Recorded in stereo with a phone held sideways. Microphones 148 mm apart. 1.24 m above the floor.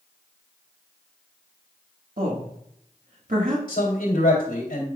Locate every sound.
2.2 s a woman speaking: 70° right (ahead or behind), 1.6 m
3.7 s a man speaking: 85° left, 3 m